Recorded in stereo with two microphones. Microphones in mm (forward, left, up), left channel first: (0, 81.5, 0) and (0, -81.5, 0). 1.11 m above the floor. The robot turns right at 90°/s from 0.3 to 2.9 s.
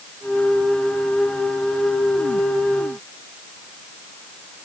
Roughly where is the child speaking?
No child speaking in this recording.